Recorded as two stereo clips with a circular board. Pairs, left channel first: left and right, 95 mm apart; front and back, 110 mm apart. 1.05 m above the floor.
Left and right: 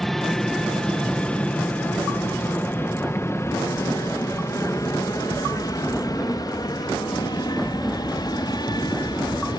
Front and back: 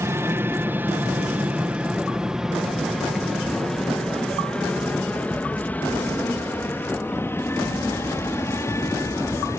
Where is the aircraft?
175° left; by 9.6 s 60° left.